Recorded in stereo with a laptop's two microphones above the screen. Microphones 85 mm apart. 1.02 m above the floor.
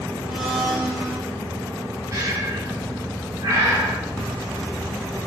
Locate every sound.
0.3 s a blender: 10° right (ahead or behind), 2.5 m
2.1 s breathing: 40° right (ahead or behind), 1.5 m